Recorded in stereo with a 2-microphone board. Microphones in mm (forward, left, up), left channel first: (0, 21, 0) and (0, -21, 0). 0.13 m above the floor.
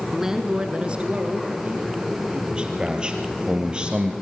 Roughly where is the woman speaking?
Centre.